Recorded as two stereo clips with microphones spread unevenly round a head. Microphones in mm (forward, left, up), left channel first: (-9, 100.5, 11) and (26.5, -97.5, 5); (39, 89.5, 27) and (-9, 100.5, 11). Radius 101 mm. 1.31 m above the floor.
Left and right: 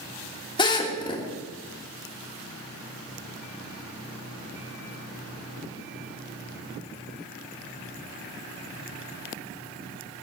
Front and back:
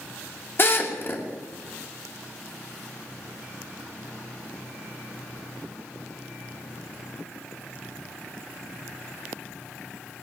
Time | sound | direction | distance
0.6 | a drill | 30° left | 2.5 m